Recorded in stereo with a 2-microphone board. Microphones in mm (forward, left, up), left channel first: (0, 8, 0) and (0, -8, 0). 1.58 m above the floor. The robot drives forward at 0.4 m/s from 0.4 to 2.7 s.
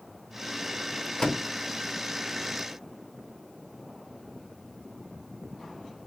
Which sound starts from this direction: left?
A door slam, at 1.2 s.